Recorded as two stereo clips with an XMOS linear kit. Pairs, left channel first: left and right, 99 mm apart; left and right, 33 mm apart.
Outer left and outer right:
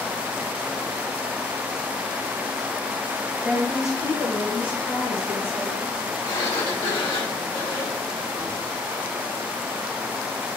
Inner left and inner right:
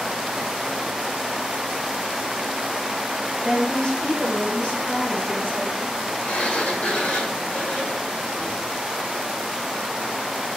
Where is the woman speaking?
5° right (ahead or behind), 0.8 m; by 6.1 s 80° left, 3.5 m.